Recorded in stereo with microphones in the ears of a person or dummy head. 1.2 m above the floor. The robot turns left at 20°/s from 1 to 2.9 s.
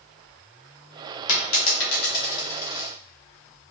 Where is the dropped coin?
70° left (ahead or behind), 1.9 m; by 2.9 s 65° left (ahead or behind), 1.9 m.